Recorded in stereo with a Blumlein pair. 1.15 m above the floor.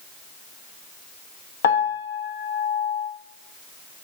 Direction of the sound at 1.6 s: 60° left.